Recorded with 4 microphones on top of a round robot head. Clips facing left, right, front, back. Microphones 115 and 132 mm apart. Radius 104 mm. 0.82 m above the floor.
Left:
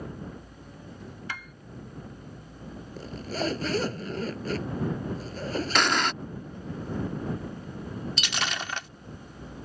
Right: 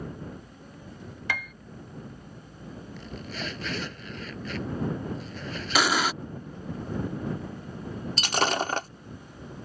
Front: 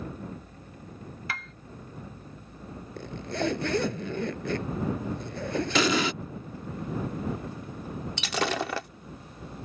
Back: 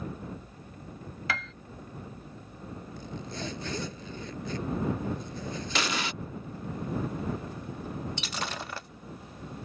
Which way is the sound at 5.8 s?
5° right.